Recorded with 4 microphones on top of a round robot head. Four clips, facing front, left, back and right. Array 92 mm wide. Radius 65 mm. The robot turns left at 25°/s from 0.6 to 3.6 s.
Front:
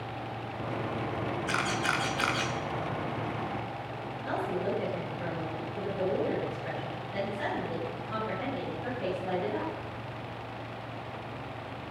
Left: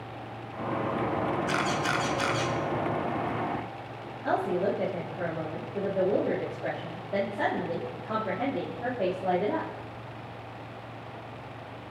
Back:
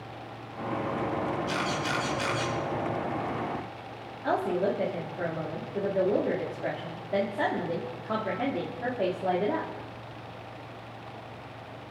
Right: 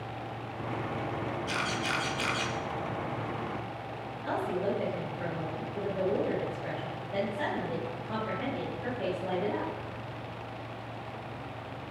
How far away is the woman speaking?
About 3.5 m.